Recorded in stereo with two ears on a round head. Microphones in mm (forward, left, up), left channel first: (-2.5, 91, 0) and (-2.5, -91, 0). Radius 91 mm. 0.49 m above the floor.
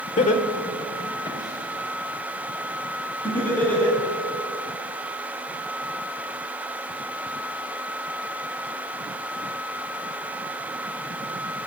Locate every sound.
0.2 s laughter: 35° left (ahead or behind), 2.0 m; by 4.0 s 10° left (ahead or behind), 6.5 m